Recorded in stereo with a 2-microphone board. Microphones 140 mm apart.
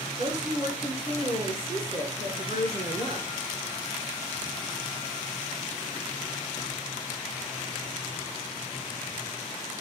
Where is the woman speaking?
45° right (ahead or behind), 2.0 m.